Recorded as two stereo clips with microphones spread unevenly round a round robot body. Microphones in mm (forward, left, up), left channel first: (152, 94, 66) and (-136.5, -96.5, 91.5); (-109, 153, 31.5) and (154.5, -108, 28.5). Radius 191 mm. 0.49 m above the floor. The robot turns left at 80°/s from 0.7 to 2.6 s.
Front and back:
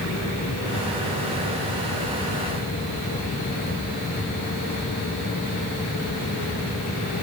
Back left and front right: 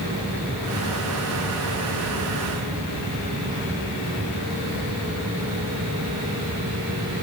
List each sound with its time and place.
Only background noise.